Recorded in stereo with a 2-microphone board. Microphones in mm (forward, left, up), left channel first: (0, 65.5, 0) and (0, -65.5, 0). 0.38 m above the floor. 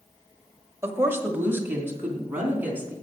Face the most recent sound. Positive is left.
turn(degrees=-15)  # may be behind; listen again after turning